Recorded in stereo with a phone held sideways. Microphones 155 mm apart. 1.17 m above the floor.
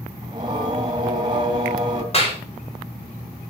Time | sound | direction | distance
0.2 | singing | 25° right (ahead or behind) | 2.5 m
2.1 | a clap | 40° left (ahead or behind) | 3 m